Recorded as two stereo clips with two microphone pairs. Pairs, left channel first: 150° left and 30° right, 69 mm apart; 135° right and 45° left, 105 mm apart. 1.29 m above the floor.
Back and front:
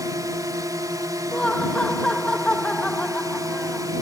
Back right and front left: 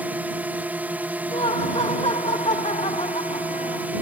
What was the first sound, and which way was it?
A drone, 30° right.